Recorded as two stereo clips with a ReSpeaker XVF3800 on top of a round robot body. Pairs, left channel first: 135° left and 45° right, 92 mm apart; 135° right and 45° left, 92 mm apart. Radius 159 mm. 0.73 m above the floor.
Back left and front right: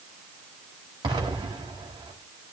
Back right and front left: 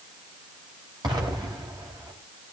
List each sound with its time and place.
1.0 s an explosion: straight ahead, 1.6 m